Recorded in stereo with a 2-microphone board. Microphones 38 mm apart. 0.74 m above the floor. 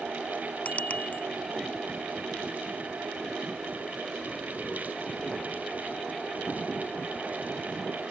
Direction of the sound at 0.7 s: 45° left (ahead or behind).